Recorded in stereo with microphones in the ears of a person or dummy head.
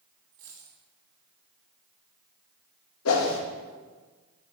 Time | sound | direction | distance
0.3 | a dropped coin | 55° right (ahead or behind) | 3 m
3.0 | a whoosh | 85° left | 1.0 m